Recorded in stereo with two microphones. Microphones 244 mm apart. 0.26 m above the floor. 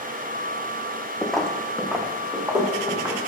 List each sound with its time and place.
1.2 s footsteps: 5° left (ahead or behind), 0.8 m; by 3.2 s 10° right (ahead or behind), 2.5 m